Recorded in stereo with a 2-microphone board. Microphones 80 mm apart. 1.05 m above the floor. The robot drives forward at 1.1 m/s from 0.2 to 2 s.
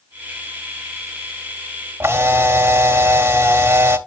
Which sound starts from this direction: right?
A camera shutter, at 2.0 s.